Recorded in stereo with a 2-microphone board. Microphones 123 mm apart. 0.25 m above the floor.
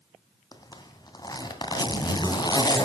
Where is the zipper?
30° left (ahead or behind), 2 m.